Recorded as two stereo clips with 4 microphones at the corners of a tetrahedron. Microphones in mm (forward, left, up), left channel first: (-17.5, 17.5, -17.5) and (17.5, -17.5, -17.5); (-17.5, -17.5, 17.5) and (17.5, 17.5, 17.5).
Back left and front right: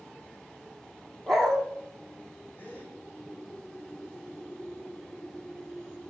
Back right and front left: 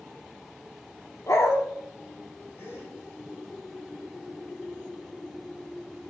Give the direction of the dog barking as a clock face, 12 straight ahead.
5 o'clock.